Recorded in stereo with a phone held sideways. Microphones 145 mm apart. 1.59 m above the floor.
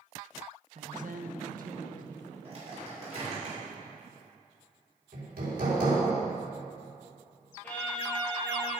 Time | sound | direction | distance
0.8 | a woman speaking | 55° right (ahead or behind) | 1.0 m
2.5 | a microwave | 45° right (ahead or behind) | 5.5 m
5.1 | hammering | 85° right | 4 m
7.6 | a violin | 15° left (ahead or behind) | 3.5 m